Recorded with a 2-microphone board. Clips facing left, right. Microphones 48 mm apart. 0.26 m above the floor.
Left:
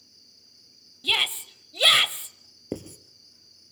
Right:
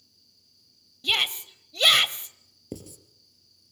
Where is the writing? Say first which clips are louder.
Left 6 dB; 45° left (ahead or behind), 1.8 m.